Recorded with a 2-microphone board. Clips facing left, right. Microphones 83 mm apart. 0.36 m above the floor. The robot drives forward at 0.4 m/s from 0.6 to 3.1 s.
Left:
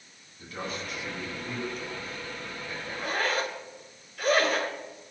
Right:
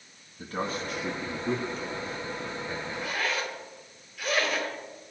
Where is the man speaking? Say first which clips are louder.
Right 4 dB; 45° right (ahead or behind), 3 m; by 2.8 s 35° right (ahead or behind), 3.5 m.